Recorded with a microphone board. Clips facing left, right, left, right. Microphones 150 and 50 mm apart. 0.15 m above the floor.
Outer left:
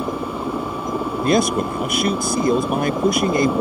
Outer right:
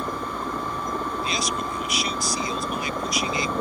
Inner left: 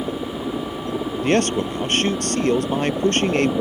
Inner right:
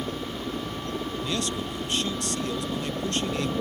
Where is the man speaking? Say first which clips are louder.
Outer left 11 dB, inner left 15 dB; 55° left (ahead or behind).